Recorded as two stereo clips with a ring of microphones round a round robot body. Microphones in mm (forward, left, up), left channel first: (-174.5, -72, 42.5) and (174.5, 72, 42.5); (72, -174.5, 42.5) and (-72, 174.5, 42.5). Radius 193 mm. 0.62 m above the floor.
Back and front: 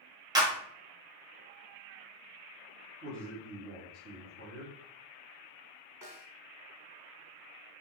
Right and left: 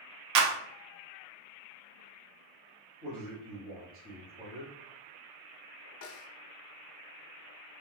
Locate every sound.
0.3 s a clap: 100° left, 0.7 m
3.0 s a man speaking: 55° left, 1.5 m
6.0 s a snare drum: 60° right, 0.8 m